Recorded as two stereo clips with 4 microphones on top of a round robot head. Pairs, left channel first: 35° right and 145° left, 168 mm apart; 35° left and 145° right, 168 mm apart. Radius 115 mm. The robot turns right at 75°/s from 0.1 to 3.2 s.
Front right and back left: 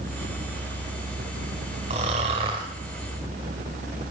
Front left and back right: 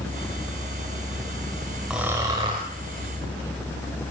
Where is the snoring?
135° left, 1.1 m; by 2.7 s 170° right, 1.1 m.